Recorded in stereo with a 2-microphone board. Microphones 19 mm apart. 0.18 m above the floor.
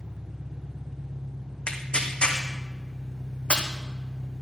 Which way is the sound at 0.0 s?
35° right (ahead or behind).